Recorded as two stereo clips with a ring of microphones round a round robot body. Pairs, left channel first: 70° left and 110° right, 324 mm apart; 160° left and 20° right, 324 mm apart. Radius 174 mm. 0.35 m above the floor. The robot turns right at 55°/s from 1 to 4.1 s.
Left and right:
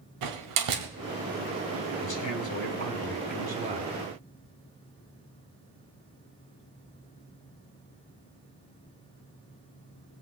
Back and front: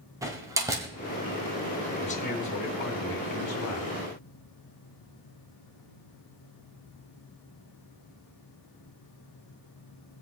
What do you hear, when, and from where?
0.2 s a door slam: 105° right, 1.6 m
2.0 s a man speaking: 85° left, 2.5 m; by 4.0 s 165° right, 2.5 m